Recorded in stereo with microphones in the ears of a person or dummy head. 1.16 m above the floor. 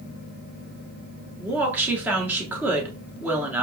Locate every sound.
1.4 s a woman speaking: 10° right (ahead or behind), 1.0 m